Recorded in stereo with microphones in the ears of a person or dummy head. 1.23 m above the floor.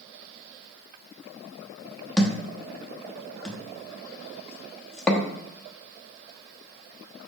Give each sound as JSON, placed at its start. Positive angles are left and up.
{"t": 2.2, "sound": "a thud", "side_deg": 0, "distance_m": 1.0}